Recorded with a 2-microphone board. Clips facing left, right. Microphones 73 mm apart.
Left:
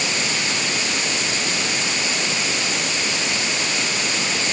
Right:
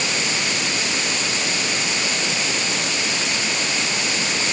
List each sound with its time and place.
Only background noise.